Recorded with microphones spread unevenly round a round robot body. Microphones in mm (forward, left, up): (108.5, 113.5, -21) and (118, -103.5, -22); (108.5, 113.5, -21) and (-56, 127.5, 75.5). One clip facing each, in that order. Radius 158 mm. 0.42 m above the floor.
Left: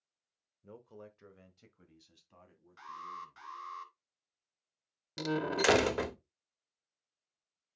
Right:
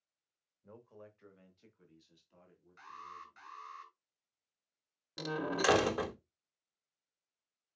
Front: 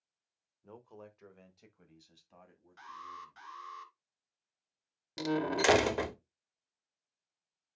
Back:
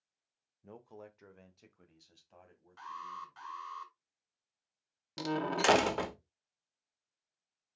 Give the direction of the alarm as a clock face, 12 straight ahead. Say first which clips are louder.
Left 6 dB, back 3 dB; 10 o'clock.